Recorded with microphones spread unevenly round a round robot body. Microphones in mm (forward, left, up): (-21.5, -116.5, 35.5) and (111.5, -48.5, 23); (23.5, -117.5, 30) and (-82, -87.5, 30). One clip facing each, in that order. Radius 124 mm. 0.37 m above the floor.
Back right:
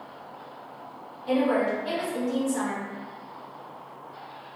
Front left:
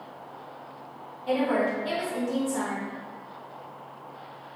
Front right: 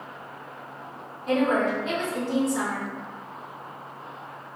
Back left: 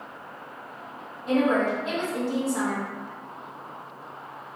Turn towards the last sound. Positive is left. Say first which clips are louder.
# back right 1 dB, even
turn(degrees=75)